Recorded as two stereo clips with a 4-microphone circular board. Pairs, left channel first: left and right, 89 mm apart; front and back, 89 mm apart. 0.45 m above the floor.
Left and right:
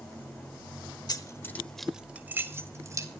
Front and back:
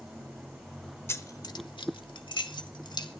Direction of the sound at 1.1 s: 60° left.